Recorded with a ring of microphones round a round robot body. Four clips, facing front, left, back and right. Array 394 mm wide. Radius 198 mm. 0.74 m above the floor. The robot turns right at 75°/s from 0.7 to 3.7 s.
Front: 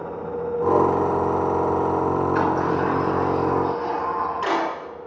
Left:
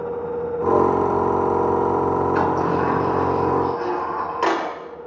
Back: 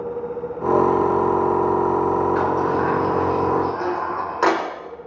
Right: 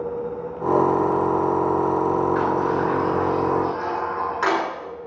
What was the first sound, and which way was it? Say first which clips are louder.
A sliding door: left 1 dB, back 1 dB; 60° left.